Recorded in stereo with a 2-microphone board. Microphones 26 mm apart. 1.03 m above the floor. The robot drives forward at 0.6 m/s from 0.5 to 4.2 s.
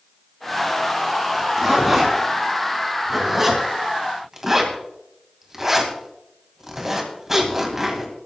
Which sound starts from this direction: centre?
A zipper, at 1.3 s.